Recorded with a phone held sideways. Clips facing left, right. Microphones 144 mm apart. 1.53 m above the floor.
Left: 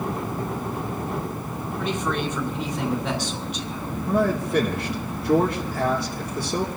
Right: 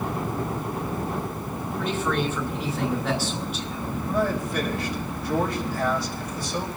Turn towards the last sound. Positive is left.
turn(degrees=60)  # may be behind; listen again after turning